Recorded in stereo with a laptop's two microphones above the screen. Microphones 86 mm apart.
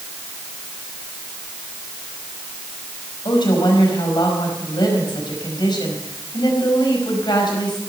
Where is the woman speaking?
60° left (ahead or behind), 4.5 m.